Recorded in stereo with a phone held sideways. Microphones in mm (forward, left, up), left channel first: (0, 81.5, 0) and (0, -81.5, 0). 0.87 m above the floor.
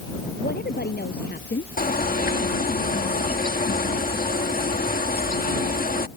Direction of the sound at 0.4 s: 80° left.